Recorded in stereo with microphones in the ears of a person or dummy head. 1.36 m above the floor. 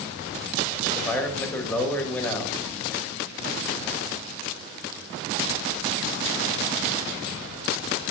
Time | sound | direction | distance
0.9 | a man speaking | 5° left (ahead or behind) | 1.9 m